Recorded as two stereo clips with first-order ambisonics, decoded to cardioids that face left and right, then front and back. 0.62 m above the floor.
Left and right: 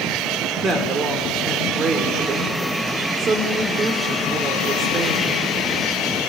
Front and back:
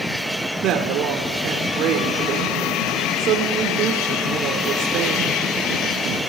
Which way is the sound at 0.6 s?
150° right.